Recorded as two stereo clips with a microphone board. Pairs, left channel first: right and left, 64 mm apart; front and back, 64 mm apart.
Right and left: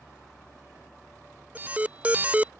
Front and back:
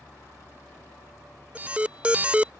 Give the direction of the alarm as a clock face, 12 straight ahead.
8 o'clock.